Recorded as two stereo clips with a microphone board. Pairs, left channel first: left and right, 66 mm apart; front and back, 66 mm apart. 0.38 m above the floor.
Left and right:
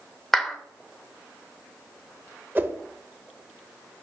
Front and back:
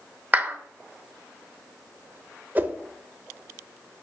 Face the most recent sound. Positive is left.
turn(degrees=-135)